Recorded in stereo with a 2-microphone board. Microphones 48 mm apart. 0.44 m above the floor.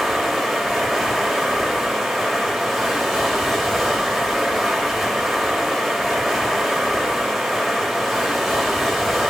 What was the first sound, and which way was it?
Running water, centre (ahead or behind).